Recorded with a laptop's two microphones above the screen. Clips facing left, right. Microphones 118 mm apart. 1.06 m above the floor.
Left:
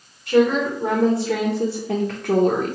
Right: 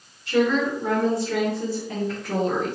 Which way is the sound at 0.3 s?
40° left (ahead or behind).